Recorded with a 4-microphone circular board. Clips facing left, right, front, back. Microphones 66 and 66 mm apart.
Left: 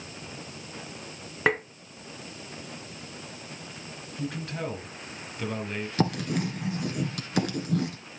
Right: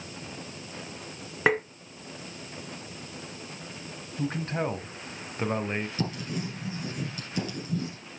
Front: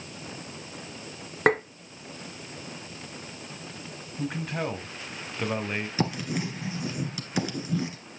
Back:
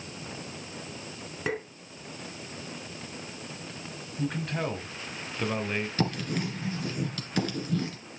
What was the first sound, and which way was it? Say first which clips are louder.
Tapping: right 1 dB, front 10 dB; 5° right.